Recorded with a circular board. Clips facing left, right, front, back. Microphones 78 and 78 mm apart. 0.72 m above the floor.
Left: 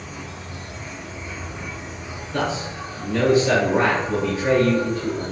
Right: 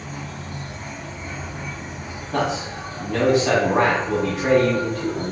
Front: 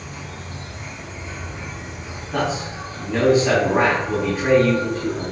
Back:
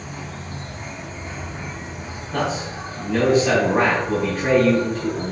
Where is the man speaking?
80° right, 4.5 m.